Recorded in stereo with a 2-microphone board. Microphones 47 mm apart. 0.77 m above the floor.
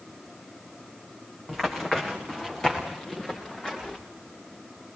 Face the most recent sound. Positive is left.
turn(degrees=10)  # may be behind; listen again after turning